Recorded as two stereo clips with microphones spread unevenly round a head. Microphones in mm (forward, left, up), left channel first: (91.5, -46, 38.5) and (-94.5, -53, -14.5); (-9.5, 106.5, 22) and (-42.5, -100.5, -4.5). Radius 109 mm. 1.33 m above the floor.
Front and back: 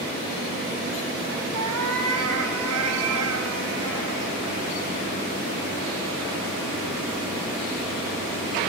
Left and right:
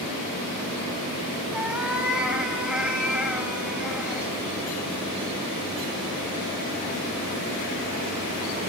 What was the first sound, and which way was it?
A cat meowing, 175° left.